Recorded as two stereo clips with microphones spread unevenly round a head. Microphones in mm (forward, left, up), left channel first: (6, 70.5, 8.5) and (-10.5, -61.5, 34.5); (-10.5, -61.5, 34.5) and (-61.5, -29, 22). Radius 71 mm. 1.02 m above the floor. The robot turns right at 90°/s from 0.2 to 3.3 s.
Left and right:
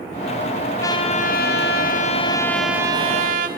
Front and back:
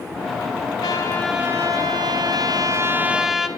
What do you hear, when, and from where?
0.8 s a trumpet: 10° left, 3 m; by 3.5 s 125° right, 3 m